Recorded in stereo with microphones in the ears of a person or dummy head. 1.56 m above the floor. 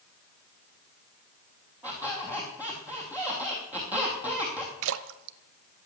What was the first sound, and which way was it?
A squeak, 5° right (ahead or behind).